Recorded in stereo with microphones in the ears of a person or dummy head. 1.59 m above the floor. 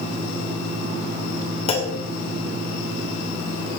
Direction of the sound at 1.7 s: 30° left (ahead or behind).